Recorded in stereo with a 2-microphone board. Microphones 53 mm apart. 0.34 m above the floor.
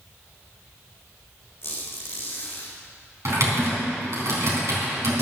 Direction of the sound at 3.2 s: 60° right (ahead or behind).